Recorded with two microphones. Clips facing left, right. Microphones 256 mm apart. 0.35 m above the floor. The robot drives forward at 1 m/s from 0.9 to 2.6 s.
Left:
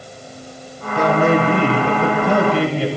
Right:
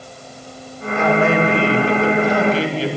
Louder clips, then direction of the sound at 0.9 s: Left 1 dB; 40° left (ahead or behind).